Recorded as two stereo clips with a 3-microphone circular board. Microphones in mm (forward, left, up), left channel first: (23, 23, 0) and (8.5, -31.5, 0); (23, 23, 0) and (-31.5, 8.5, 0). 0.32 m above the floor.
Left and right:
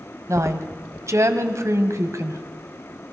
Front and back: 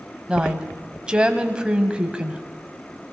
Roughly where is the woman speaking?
Right.